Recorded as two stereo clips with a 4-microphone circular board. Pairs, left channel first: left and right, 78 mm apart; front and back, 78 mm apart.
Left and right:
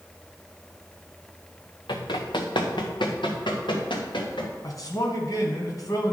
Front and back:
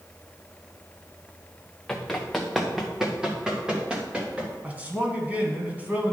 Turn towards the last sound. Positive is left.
turn(degrees=115)